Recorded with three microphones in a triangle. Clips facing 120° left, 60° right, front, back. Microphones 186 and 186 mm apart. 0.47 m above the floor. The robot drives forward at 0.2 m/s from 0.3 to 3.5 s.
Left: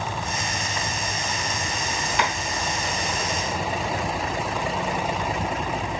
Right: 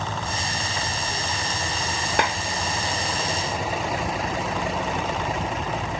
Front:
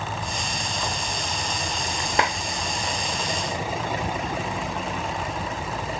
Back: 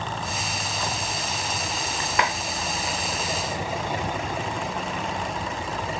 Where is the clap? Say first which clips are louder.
Right 2 dB, front 1 dB; 55° right, 0.7 m.